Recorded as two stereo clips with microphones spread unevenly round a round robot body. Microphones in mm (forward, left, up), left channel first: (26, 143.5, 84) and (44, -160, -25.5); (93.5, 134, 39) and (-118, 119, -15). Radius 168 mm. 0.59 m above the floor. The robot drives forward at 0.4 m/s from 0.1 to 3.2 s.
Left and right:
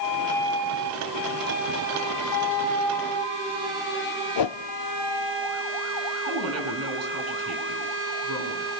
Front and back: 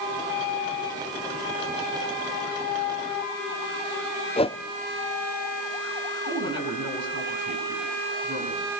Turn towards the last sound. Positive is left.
turn(degrees=-125)